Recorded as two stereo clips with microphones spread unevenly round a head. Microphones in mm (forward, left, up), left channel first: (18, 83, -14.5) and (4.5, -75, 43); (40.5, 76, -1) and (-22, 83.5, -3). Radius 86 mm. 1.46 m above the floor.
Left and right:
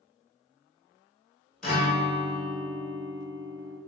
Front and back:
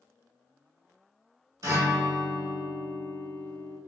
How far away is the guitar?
About 1.6 m.